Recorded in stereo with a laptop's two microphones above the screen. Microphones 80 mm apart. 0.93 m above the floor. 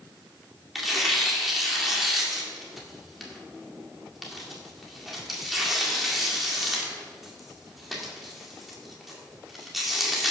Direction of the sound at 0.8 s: Centre (ahead or behind).